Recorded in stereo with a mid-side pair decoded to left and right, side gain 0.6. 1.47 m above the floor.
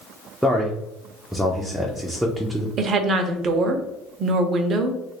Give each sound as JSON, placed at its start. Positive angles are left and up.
{"t": 0.4, "sound": "a man speaking", "azimuth_deg": -5, "distance_m": 0.5}
{"t": 2.8, "sound": "a woman speaking", "azimuth_deg": -45, "distance_m": 0.6}